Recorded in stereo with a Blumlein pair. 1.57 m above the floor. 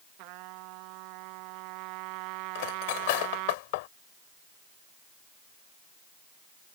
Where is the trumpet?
45° right.